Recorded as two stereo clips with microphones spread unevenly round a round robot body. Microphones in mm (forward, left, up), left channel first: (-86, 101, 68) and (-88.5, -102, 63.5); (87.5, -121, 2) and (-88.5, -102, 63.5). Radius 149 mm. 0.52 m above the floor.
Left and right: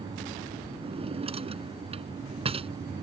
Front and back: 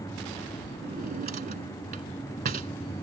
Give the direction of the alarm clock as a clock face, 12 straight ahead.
I don't hear an alarm clock.